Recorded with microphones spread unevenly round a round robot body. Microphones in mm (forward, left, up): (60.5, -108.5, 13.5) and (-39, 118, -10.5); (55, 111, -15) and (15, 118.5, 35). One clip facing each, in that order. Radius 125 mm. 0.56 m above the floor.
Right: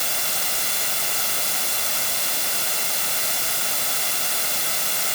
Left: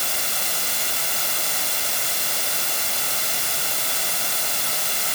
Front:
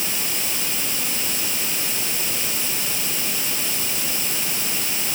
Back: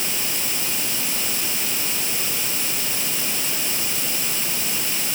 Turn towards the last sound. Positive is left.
No sound to turn to.